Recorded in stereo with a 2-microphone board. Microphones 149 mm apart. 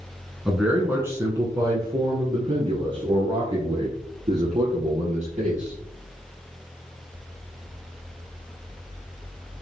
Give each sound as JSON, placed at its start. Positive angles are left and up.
{"t": 0.5, "sound": "a man speaking", "side_deg": -5, "distance_m": 1.5}